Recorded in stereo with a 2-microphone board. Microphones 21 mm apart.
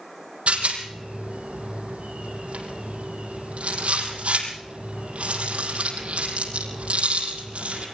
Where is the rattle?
85° right, 5.5 m.